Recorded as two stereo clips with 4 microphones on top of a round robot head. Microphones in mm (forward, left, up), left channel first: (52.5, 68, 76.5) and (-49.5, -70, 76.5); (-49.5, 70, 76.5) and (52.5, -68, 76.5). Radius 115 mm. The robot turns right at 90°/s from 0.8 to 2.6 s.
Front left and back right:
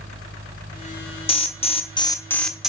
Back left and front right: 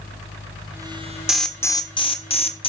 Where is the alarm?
30° left, 1.2 m; by 2.7 s 150° left, 1.2 m.